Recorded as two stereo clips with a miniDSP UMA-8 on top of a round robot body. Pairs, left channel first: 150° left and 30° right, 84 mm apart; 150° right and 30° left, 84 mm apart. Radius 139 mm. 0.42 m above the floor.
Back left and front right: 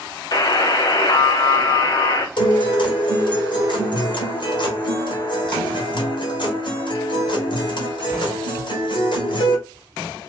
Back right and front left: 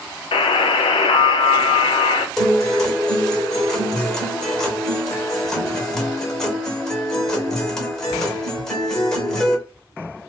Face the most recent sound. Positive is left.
turn(degrees=130)